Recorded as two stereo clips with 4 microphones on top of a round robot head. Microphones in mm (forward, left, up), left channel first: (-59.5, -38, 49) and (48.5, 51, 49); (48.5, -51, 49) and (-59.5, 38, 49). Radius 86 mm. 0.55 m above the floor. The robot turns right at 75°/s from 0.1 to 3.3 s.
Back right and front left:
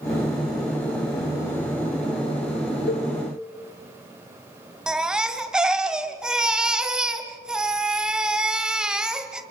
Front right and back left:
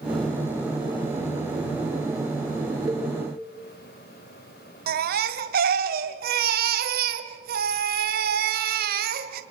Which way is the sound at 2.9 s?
135° right.